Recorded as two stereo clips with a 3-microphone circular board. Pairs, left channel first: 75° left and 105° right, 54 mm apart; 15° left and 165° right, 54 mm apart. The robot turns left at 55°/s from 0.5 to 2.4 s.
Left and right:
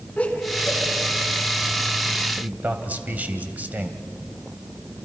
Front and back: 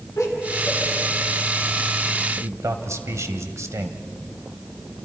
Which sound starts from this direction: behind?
A man speaking, at 2.4 s.